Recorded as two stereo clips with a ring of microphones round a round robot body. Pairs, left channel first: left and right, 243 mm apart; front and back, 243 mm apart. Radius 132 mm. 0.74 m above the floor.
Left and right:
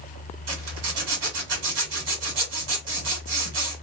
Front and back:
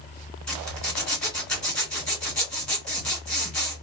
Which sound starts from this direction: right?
A zipper, at 0.5 s.